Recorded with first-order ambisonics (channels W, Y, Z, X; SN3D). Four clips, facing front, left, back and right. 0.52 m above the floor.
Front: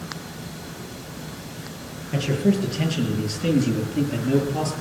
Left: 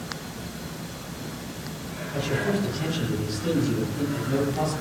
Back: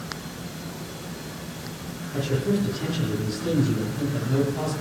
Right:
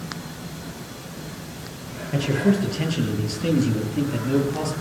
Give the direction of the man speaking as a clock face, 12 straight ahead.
1 o'clock.